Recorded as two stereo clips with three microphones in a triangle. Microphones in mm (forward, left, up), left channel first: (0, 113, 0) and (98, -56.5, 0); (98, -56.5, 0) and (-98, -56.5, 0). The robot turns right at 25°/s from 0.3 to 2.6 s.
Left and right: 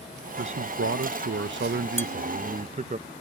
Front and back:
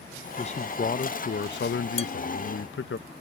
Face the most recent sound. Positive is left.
turn(degrees=-45)